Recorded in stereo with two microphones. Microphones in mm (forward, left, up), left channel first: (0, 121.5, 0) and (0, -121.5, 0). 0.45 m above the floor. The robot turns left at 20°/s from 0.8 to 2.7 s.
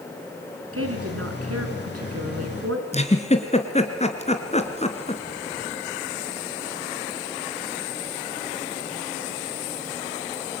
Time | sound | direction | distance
0.7 | a woman speaking | 65° right | 5.5 m
2.9 | a giggle | 25° left (ahead or behind) | 3 m